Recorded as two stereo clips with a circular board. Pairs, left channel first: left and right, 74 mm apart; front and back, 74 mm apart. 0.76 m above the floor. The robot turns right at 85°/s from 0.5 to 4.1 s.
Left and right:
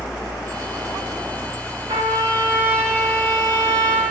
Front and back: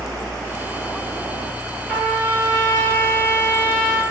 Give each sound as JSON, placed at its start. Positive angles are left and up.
{"t": 1.9, "sound": "a trumpet", "azimuth_deg": -85, "distance_m": 5.5}